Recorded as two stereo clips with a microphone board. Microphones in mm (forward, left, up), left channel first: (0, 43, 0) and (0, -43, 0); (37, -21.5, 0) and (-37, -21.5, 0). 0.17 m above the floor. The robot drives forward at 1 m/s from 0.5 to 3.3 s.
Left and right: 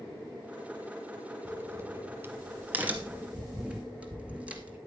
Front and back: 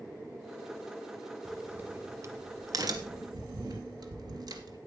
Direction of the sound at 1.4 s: 90° right.